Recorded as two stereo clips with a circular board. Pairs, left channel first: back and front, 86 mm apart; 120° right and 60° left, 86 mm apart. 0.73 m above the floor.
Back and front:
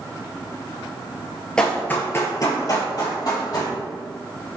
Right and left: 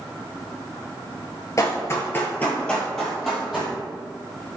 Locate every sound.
1.6 s running footsteps: 105° right, 0.8 m; by 3.7 s 145° left, 1.6 m